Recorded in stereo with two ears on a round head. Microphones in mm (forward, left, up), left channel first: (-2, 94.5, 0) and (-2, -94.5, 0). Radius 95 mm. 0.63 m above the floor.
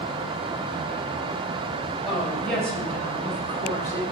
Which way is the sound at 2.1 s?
Centre (ahead or behind).